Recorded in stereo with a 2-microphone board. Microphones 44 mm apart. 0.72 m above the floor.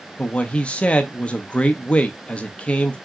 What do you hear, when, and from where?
0.2 s a man speaking: 25° left (ahead or behind), 0.6 m